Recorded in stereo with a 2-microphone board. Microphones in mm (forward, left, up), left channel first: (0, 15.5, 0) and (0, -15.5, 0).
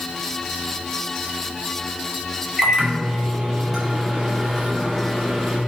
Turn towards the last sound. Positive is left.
turn(degrees=-10)  # may be behind; listen again after turning